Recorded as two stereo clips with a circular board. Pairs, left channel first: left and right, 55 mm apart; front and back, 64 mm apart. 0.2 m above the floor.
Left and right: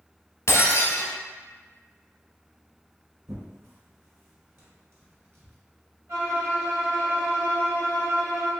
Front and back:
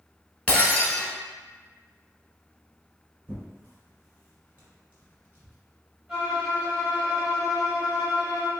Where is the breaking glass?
60° left, 1.0 m.